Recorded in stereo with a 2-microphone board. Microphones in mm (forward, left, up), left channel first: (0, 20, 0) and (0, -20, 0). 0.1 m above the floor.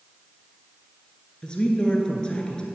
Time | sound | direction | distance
1.4 | a woman speaking | 20° left (ahead or behind) | 1.2 m